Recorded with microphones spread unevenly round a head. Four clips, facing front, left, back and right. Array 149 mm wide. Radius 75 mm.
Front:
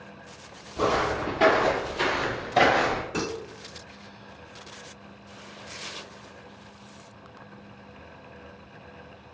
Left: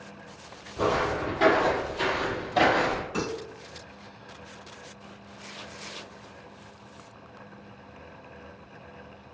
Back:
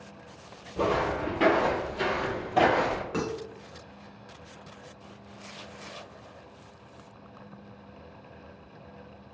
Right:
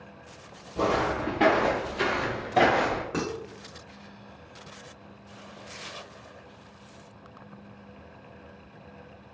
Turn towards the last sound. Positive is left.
turn(degrees=-110)